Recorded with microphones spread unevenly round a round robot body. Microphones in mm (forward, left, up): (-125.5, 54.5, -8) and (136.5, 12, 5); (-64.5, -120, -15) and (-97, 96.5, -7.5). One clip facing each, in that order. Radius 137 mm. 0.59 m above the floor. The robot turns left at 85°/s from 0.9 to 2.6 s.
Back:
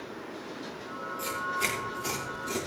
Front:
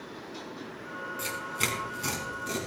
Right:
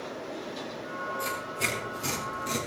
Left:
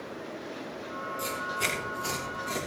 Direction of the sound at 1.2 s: 45° left.